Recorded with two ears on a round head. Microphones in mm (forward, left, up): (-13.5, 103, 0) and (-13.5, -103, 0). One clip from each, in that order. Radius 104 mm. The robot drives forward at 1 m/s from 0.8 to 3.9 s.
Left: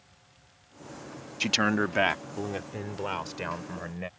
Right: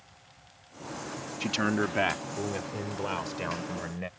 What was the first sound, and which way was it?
A man speaking, 35° left (ahead or behind).